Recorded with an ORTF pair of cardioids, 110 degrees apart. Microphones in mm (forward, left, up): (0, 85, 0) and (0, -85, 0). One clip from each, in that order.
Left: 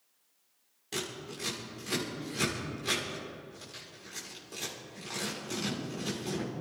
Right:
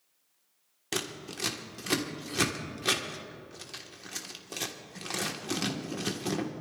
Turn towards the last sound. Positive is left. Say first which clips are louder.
# right 3 dB
turn(degrees=-55)